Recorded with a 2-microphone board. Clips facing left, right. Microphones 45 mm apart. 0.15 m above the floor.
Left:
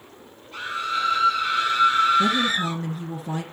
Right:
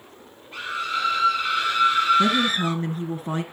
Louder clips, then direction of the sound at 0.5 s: Left 1 dB; 25° right (ahead or behind).